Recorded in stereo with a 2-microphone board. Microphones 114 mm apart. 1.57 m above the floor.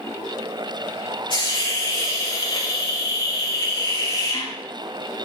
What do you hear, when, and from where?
1.3 s a hiss: 50° left (ahead or behind), 2 m